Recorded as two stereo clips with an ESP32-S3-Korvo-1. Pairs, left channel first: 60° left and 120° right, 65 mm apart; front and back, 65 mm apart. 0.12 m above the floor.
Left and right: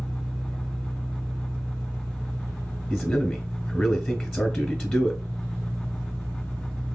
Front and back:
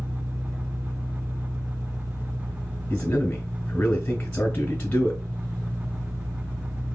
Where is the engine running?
135° left, 2.5 m.